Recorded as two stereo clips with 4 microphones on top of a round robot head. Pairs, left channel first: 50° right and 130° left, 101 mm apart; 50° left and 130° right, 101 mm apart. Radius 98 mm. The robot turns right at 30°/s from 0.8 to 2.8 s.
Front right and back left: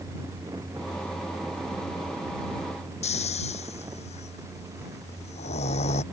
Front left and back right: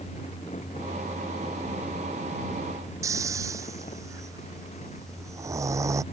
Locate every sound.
3.0 s snoring: 65° right